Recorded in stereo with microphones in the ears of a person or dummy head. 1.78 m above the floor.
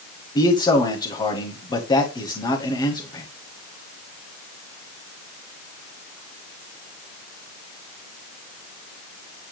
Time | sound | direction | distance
0.3 | a man speaking | 20° left (ahead or behind) | 2.0 m